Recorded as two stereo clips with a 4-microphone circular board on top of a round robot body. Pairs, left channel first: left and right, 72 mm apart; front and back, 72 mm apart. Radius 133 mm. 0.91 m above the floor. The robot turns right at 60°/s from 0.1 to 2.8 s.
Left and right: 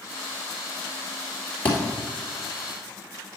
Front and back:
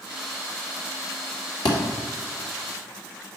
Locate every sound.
1.6 s a thud: 20° left, 2 m; by 1.8 s 25° left, 2 m